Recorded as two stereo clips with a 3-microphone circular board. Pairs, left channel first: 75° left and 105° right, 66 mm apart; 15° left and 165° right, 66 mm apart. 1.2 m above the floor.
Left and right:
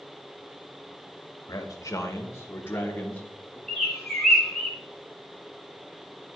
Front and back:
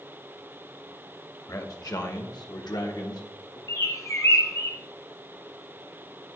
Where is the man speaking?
45° left, 1.3 m; by 3.6 s 5° left, 1.8 m.